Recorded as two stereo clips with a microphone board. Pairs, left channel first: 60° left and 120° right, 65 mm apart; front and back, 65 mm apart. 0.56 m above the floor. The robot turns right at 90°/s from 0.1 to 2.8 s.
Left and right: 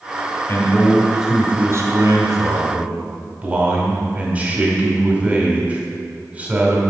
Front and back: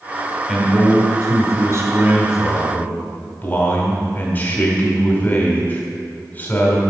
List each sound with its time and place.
0.5 s a man speaking: 95° left, 2 m; by 6.8 s 60° right, 2 m